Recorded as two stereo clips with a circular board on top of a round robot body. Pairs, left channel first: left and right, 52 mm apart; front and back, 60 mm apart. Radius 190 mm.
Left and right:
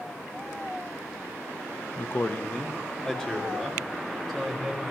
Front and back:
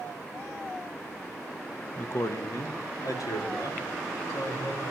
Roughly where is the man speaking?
Ahead left.